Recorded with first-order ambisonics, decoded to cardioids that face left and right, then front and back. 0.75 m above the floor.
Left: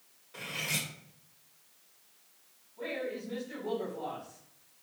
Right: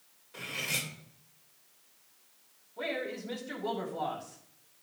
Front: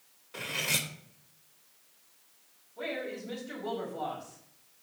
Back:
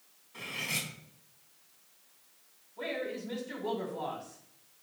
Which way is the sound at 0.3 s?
5° right.